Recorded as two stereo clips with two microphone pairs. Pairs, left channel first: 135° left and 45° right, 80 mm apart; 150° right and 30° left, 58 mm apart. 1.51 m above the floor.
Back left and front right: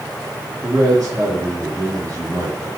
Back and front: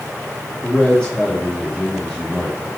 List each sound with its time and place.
0.6 s a man speaking: 80° right, 4 m